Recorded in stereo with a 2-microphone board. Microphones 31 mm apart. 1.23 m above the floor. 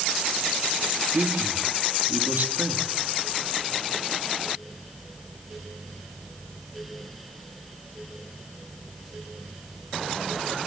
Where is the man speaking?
70° right (ahead or behind), 3 m.